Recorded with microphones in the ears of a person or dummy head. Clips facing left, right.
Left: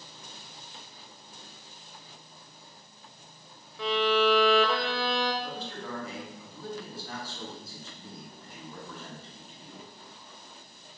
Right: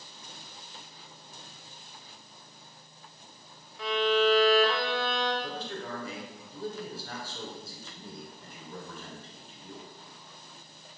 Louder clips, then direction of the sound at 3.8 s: Even; 75° left (ahead or behind).